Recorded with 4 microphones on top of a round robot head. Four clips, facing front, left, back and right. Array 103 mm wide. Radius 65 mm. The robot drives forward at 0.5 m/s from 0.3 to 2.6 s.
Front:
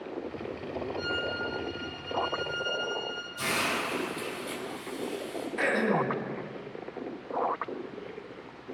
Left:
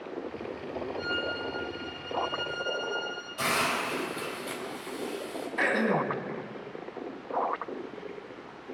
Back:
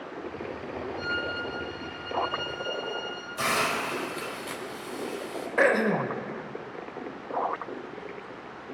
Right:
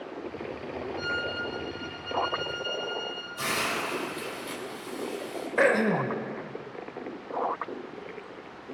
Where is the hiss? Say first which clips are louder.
Left 2 dB, back 4 dB; 175° left, 3.5 m.